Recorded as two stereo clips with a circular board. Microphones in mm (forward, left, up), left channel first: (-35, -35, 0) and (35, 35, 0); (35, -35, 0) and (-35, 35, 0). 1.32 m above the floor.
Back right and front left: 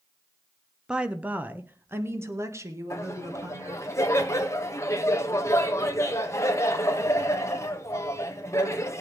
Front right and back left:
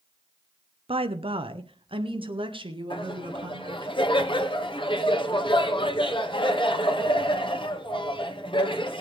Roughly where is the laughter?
Right.